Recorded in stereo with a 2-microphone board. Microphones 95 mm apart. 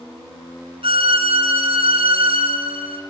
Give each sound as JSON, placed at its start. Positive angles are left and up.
{"t": 0.8, "sound": "a violin", "side_deg": -60, "distance_m": 1.3}